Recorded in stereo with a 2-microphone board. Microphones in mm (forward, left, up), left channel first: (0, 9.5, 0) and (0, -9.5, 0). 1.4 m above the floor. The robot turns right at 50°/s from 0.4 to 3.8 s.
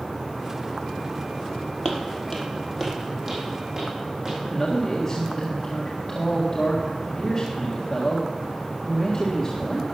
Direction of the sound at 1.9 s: 30° left (ahead or behind).